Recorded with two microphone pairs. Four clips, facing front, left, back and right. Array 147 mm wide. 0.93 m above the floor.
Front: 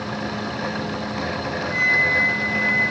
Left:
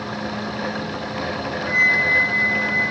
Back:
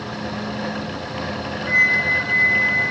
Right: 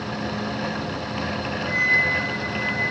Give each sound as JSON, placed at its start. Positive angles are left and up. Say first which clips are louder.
{"t": 1.7, "sound": "a flute", "louder": "left 4 dB, back 2 dB", "azimuth_deg": 135, "distance_m": 1.0}